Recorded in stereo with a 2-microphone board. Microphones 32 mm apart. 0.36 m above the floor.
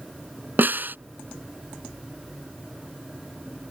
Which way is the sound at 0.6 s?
80° right.